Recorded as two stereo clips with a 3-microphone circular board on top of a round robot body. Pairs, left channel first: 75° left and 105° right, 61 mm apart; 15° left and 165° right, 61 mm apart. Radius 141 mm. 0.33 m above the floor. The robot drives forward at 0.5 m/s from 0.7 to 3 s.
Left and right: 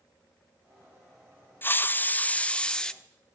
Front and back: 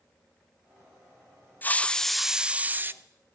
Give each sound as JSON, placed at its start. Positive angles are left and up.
{"t": 1.6, "sound": "a hiss", "azimuth_deg": 50, "distance_m": 0.7}